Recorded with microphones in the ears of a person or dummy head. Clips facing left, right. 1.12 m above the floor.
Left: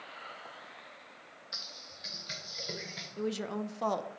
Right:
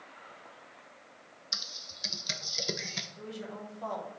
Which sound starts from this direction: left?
A woman speaking, at 3.2 s.